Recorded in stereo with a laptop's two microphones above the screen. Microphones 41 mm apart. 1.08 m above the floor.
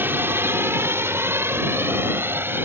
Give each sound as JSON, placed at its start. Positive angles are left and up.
{"t": 0.0, "sound": "a drone", "side_deg": -55}